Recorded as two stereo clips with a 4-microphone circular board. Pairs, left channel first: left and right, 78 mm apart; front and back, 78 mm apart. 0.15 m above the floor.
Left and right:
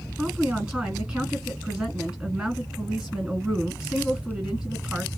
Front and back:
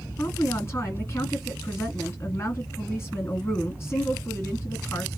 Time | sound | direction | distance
0.2 | a woman speaking | 20° right | 1.9 m